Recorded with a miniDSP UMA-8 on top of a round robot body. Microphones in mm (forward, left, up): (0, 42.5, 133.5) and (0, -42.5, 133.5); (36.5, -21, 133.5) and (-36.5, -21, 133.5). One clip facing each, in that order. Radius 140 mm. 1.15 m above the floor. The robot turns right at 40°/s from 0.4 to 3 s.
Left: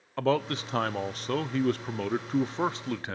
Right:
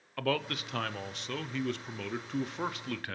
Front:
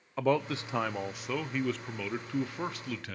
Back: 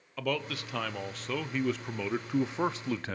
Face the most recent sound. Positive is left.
turn(degrees=145)